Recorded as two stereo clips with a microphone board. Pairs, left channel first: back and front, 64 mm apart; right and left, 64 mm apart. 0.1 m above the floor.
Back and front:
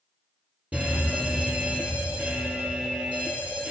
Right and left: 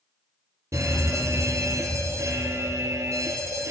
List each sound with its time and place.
0.7 s a fire alarm: 65° left, 4 m